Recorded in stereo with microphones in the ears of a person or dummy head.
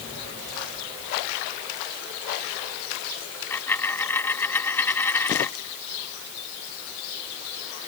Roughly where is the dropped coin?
Centre.